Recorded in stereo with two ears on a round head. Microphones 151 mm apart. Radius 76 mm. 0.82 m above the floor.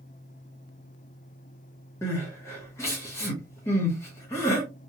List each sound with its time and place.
2.0 s crying: 15° left (ahead or behind), 1.3 m